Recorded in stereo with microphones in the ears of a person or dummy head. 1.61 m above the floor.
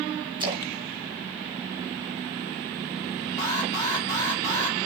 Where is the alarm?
20° left (ahead or behind), 4 m.